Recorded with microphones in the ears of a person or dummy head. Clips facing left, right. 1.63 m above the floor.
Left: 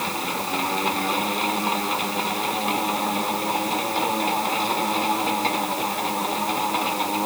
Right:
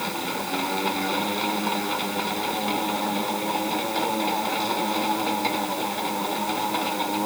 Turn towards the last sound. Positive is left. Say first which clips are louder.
# left 1 dB
turn(degrees=0)  # may be behind; listen again after turning